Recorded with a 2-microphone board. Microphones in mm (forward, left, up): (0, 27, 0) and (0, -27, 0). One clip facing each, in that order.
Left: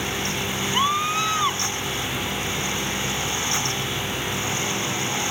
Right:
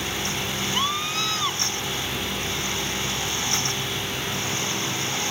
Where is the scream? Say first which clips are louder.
Left 6 dB; 20° left (ahead or behind).